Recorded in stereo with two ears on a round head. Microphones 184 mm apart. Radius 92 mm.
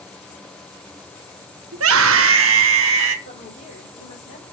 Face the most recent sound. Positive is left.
turn(degrees=40)  # may be behind; listen again after turning